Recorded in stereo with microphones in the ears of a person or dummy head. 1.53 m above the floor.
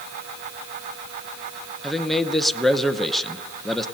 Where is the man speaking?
Centre (ahead or behind), 0.8 m.